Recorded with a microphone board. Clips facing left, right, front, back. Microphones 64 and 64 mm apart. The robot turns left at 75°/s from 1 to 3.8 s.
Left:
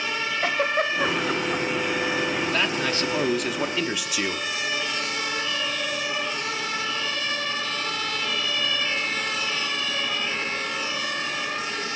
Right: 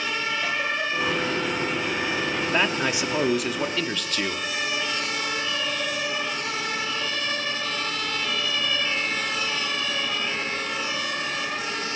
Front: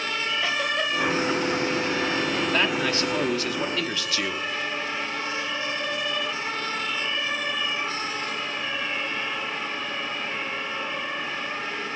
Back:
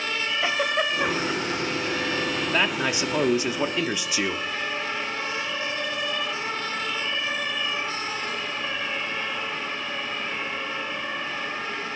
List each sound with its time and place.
0.4 s a giggle: 115° left, 1.6 m; by 2.4 s 10° left, 1.6 m
2.5 s a man speaking: 105° right, 1.1 m; by 4.5 s 155° left, 1.1 m